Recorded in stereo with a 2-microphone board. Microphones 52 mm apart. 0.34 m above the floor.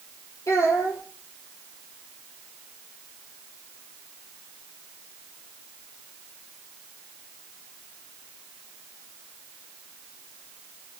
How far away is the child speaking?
About 5.5 m.